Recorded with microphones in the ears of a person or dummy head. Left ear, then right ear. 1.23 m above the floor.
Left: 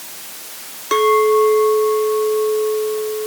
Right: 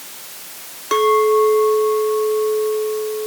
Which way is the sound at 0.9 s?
Centre (ahead or behind).